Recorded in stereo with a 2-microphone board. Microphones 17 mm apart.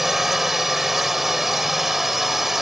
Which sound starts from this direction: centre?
A drone, at 0.0 s.